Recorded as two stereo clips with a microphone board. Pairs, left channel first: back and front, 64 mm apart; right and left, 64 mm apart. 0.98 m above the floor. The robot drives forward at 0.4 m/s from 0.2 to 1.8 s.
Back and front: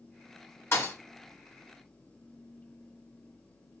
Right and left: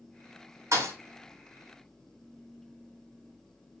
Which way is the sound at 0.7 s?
130° left.